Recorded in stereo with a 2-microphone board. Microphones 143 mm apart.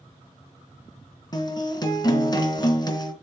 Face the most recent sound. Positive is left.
turn(degrees=30)  # may be behind; listen again after turning